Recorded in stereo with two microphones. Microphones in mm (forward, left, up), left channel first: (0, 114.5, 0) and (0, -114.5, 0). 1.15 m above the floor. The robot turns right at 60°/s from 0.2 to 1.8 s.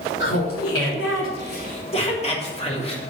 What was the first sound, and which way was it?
Laughter, 55° left.